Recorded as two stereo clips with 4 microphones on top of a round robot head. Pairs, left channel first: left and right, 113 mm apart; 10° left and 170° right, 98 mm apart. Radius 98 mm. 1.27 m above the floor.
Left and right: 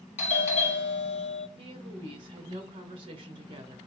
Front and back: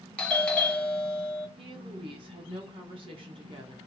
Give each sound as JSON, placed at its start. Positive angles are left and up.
{"t": 0.2, "sound": "a doorbell", "azimuth_deg": 90, "distance_m": 1.3}
{"t": 1.6, "sound": "a woman speaking", "azimuth_deg": -135, "distance_m": 1.4}